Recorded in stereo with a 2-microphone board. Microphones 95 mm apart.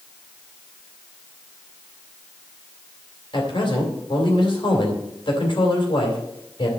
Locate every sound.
3.3 s a man speaking: 55° left (ahead or behind), 3 m